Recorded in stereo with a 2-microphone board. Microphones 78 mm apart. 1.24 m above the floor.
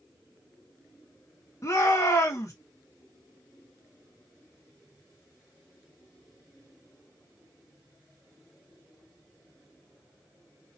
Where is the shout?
40° left (ahead or behind), 1.8 m.